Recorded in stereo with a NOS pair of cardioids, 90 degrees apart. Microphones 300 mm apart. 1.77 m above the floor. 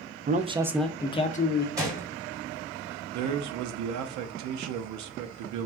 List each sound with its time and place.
0.3 s a man speaking: 30° right, 0.5 m; by 1.7 s 35° left, 0.8 m
1.8 s a gunshot: 10° right, 1.3 m
3.1 s a man speaking: 70° right, 0.6 m